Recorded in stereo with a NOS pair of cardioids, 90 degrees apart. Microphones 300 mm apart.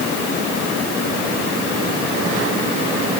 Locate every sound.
Only background noise.